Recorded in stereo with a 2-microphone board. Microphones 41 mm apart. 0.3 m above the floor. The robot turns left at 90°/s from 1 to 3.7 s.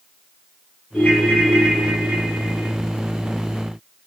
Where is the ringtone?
55° left, 1.3 m; by 2.7 s 95° right, 1.3 m.